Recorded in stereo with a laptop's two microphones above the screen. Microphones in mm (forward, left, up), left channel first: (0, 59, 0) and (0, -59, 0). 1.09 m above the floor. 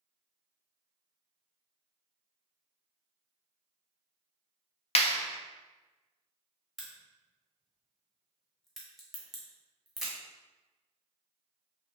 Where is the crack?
Centre (ahead or behind), 0.9 m.